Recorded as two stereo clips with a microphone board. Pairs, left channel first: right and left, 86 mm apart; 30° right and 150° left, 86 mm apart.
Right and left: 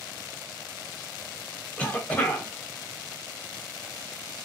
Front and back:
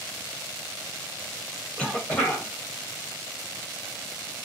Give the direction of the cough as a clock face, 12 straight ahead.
3 o'clock.